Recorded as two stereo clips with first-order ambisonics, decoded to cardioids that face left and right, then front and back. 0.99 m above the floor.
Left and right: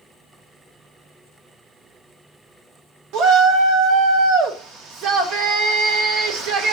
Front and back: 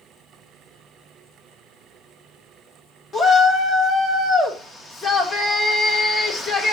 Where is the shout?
75° right, 1.0 m.